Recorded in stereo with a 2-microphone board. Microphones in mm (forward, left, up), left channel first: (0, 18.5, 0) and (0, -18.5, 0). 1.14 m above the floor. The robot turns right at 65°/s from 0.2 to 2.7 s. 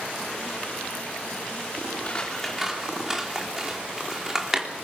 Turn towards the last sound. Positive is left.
turn(degrees=-10)  # may be behind; listen again after turning